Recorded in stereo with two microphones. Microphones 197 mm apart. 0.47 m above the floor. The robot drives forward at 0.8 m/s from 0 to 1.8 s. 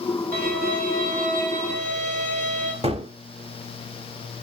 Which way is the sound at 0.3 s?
45° right (ahead or behind).